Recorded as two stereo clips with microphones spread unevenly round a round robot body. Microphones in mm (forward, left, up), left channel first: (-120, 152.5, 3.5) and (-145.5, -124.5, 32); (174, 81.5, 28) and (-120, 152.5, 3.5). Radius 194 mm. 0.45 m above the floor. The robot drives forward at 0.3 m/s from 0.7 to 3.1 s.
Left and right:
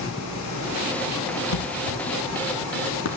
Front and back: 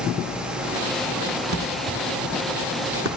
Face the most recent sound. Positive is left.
turn(degrees=115)